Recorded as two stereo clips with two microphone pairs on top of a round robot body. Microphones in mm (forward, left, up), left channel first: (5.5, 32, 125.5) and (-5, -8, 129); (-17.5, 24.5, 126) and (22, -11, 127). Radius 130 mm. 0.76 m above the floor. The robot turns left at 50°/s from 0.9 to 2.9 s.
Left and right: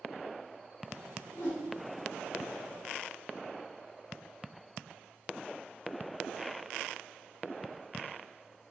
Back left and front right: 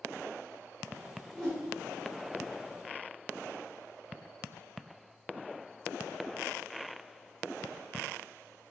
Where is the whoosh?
60° left, 0.6 m; by 1.6 s 50° left, 0.6 m.